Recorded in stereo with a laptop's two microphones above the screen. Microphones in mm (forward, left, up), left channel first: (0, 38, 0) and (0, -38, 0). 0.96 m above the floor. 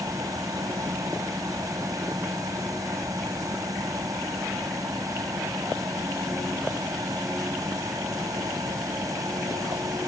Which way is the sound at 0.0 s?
50° right (ahead or behind).